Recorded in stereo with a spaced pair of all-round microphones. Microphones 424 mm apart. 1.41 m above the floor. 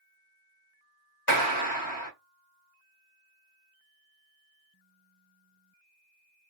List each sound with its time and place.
1.3 s a clap: 45° left (ahead or behind), 1.1 m